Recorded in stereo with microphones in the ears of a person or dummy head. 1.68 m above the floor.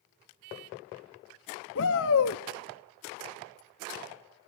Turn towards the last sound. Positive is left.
turn(degrees=70)  # may be behind; listen again after turning